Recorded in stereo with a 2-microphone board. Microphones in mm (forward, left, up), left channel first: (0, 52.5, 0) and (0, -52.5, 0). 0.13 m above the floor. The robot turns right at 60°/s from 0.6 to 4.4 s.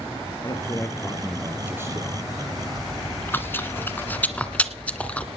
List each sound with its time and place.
0.4 s a man speaking: 135° left, 2.5 m; by 2.2 s 130° right, 2.5 m
2.8 s chewing: 15° left (ahead or behind), 1.7 m